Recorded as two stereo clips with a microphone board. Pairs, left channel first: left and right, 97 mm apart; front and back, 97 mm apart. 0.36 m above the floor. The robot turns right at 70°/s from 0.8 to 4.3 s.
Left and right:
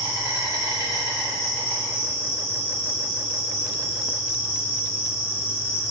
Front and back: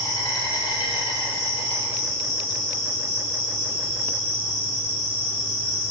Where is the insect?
45° right, 1.9 m; by 5.9 s 160° right, 1.9 m.